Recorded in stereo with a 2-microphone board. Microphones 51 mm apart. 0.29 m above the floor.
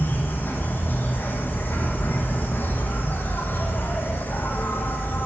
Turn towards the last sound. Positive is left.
turn(degrees=45)  # may be behind; listen again after turning